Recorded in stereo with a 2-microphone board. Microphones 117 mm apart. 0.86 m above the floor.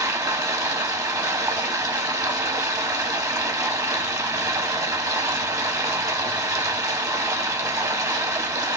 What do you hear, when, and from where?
0.0 s running water: 30° right (ahead or behind), 0.7 m